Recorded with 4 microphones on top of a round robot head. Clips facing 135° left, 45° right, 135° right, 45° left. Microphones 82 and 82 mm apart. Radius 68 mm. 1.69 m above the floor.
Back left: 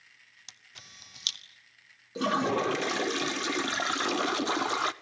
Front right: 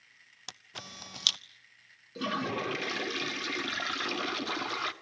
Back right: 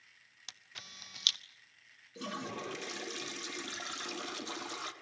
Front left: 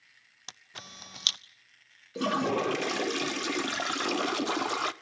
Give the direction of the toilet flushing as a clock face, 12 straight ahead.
10 o'clock.